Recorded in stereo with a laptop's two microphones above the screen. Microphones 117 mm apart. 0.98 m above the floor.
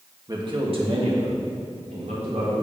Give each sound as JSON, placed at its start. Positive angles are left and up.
{"t": 0.3, "sound": "a man speaking", "side_deg": -35, "distance_m": 1.7}